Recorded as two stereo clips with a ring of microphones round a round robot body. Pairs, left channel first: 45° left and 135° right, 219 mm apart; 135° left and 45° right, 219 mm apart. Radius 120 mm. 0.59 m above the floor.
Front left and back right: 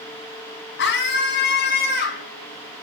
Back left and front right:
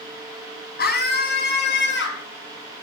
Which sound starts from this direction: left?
A scream, at 0.8 s.